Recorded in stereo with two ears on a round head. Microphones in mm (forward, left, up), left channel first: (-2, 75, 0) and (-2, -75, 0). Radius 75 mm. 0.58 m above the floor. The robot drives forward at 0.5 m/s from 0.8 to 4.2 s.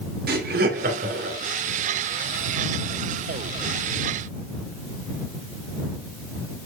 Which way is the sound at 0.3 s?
60° right (ahead or behind).